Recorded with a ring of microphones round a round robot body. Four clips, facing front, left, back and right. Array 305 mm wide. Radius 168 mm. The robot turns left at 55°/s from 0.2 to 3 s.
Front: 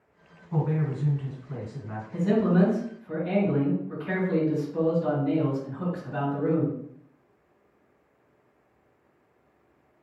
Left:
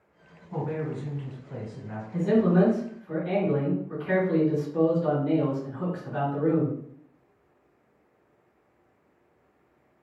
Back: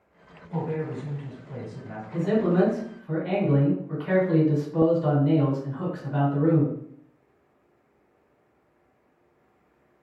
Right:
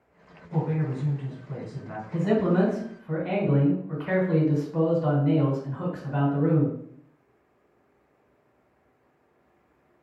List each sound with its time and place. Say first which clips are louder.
0.5 s a woman speaking: right 2 dB, front 1 dB; 20° left, 2 m; by 2.0 s 65° right, 2 m
2.1 s a man speaking: left 1 dB, back 1 dB; 75° right, 2 m; by 6.8 s 125° right, 2 m